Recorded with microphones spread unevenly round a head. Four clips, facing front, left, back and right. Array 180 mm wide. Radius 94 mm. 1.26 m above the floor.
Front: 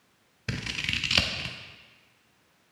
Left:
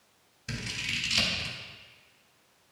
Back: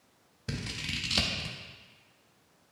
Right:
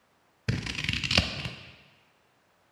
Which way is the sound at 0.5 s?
70° right.